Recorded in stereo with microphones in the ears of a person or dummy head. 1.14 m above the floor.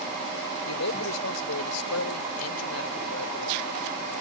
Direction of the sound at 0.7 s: 85° left.